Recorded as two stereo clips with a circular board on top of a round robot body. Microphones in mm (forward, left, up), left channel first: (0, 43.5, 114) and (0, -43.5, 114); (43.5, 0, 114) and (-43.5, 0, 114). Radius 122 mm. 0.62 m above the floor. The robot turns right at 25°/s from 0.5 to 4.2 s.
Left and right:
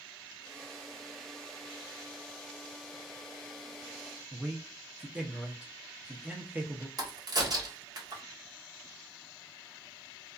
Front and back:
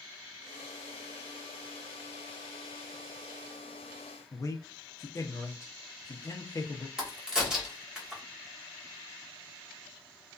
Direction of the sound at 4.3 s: 25° right.